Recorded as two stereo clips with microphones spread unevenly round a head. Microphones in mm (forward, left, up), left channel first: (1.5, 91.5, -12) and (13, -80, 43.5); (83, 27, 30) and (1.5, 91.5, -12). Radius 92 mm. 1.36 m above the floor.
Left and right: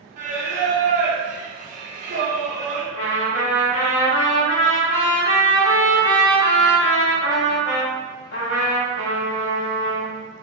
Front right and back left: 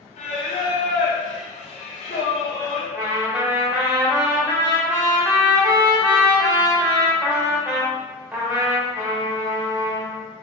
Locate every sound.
0.2 s singing: 45° right, 0.8 m
2.9 s a trumpet: 55° left, 1.3 m